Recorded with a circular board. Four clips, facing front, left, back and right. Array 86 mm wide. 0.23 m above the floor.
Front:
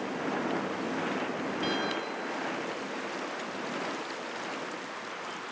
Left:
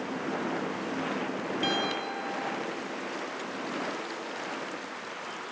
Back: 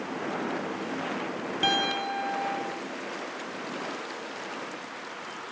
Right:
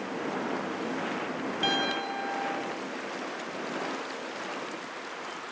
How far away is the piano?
About 1.2 m.